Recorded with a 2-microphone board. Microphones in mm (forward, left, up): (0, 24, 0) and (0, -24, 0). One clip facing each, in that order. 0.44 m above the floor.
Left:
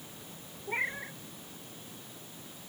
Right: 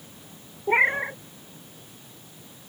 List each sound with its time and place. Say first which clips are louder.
0.7 s a cat meowing: right 13 dB; 55° right (ahead or behind)